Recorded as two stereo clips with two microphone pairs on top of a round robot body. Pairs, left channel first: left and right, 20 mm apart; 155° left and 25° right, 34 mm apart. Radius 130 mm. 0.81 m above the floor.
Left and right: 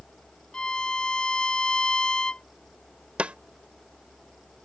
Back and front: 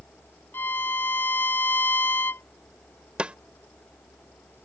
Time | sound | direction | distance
0.5 | a violin | 140° left | ?
3.2 | a snare drum | 85° right | ?